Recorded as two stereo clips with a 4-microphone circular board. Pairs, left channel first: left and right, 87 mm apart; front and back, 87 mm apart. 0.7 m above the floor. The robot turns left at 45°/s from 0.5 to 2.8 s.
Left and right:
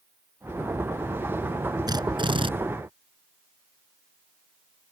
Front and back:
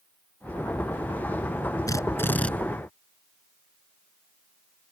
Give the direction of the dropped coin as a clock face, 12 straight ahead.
I don't hear a dropped coin.